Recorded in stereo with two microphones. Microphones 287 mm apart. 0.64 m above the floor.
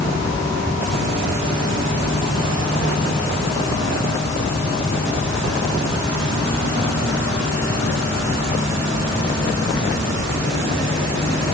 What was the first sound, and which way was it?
Only background noise.